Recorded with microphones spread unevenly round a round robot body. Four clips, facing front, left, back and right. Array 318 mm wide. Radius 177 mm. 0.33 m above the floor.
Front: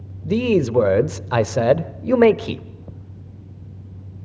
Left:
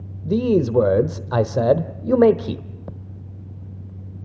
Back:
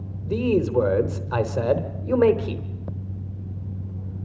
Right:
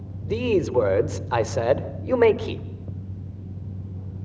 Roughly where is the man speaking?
Ahead left.